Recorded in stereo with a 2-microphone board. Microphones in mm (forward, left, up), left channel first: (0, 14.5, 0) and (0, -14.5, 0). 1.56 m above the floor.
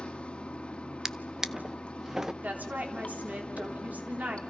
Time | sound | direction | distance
0.0 | running water | 40° left (ahead or behind) | 2 m
1.1 | a drawer | 15° right (ahead or behind) | 0.7 m
2.4 | a woman speaking | 70° right (ahead or behind) | 3.5 m